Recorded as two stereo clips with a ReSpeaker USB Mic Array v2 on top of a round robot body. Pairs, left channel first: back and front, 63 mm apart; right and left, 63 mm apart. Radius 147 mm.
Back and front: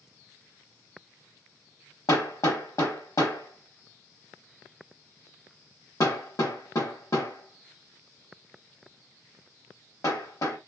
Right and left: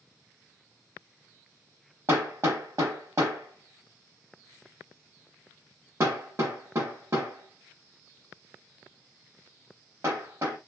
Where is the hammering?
140° left, 1.0 m.